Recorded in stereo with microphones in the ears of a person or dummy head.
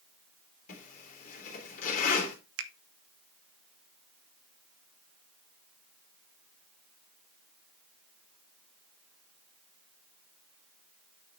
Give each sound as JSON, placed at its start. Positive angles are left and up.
{"t": 0.7, "sound": "a zipper", "side_deg": 45, "distance_m": 2.5}
{"t": 2.6, "sound": "a finger snap", "side_deg": -65, "distance_m": 0.7}